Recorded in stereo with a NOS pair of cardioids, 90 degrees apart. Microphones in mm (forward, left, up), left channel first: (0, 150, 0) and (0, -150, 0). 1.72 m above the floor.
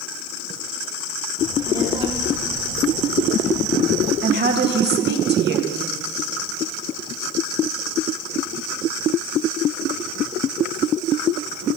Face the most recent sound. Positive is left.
turn(degrees=-35)